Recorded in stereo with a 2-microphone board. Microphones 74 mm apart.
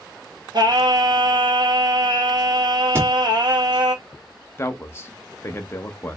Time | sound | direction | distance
0.5 | singing | 60° right (ahead or behind) | 1.0 m
3.0 | a thud | 35° right (ahead or behind) | 1.5 m
4.6 | a man speaking | 30° left (ahead or behind) | 0.8 m